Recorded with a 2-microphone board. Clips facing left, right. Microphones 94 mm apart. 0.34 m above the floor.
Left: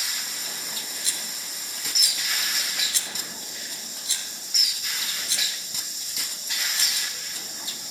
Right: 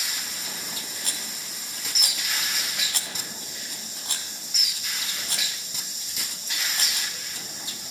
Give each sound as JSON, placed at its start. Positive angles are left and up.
{"t": 1.0, "sound": "a rattle", "side_deg": -55, "distance_m": 2.5}